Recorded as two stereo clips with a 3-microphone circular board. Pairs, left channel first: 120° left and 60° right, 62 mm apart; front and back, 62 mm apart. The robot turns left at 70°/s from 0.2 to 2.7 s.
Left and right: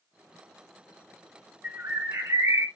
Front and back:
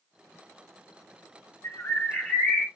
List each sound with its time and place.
1.6 s a bird: 25° right, 0.9 m; by 2.7 s 100° right, 0.9 m